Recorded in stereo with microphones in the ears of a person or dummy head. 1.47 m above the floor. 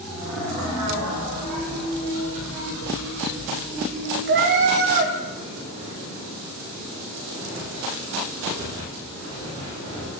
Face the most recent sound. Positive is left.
turn(degrees=-50)  # may be behind; listen again after turning